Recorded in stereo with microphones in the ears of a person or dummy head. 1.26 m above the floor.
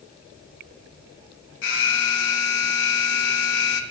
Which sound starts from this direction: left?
An alarm, at 1.6 s.